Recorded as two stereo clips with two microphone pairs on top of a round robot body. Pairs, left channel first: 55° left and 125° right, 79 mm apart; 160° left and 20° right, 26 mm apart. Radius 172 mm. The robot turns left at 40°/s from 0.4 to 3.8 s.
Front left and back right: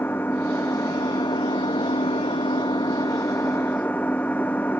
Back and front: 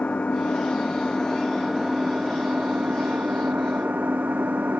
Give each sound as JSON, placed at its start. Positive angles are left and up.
{"t": 0.0, "sound": "an engine running", "azimuth_deg": 120}